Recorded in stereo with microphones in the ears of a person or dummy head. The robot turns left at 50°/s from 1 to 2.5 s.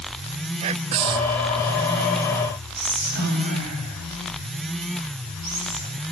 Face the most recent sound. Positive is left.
turn(degrees=-55)  # may be behind; listen again after turning